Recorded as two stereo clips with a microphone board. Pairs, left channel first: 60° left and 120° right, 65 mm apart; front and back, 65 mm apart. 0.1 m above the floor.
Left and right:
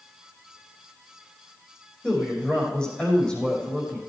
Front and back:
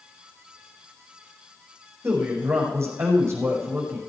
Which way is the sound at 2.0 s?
135° left.